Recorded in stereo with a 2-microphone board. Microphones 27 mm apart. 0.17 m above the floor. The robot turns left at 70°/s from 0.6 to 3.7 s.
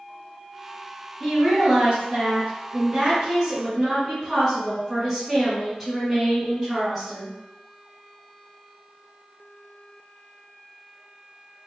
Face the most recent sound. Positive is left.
turn(degrees=-165)